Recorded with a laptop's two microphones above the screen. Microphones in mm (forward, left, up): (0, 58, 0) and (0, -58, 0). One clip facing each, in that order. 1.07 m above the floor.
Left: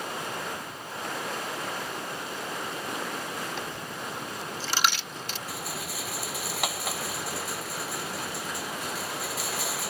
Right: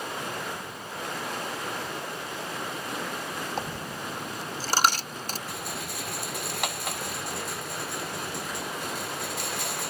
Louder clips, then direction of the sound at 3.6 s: Right 2 dB; 40° right (ahead or behind).